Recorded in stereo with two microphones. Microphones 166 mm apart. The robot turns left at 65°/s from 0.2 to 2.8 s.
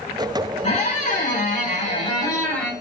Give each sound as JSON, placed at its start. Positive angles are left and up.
{"t": 0.6, "sound": "a squeak", "azimuth_deg": 130, "distance_m": 1.3}